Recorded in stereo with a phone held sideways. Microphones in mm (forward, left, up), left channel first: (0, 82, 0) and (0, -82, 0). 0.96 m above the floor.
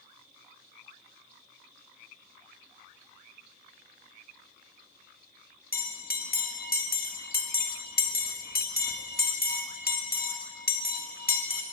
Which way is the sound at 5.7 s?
65° left (ahead or behind).